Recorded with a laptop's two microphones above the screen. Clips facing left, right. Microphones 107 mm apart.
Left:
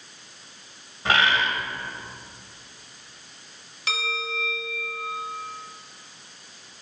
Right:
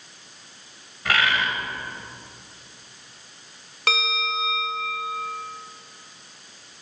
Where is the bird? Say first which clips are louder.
Left 1 dB; 25° left (ahead or behind), 1.1 m.